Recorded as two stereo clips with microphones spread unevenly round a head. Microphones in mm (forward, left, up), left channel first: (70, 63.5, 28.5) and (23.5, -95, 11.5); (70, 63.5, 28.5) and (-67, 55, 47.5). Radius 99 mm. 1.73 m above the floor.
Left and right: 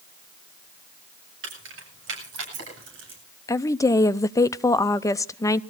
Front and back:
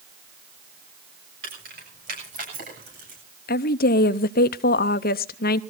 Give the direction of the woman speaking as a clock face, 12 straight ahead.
12 o'clock.